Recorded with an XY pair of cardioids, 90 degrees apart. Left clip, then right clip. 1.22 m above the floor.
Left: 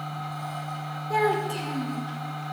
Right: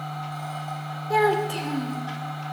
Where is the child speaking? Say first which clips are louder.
Right 3 dB; 40° right, 1.7 m.